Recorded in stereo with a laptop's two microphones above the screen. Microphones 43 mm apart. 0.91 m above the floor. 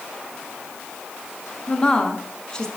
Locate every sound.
1.7 s a woman speaking: 15° left (ahead or behind), 1.2 m